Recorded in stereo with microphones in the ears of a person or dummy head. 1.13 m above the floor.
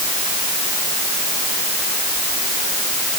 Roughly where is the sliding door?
I don't hear a sliding door.